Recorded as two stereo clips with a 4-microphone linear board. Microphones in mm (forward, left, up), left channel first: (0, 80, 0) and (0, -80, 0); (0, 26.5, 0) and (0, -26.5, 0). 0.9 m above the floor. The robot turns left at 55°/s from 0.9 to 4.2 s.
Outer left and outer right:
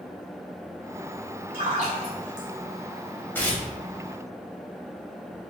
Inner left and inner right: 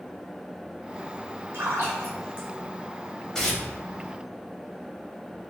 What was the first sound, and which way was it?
A splash, 65° right (ahead or behind).